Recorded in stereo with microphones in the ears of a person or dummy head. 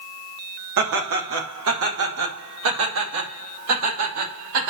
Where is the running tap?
I don't hear a running tap.